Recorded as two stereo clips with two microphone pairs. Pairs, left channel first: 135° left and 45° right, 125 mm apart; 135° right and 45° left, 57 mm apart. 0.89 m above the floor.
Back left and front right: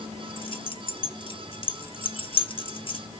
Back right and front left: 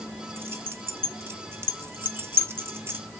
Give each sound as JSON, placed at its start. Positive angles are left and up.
{"t": 0.4, "sound": "keys jangling", "azimuth_deg": 90, "distance_m": 0.6}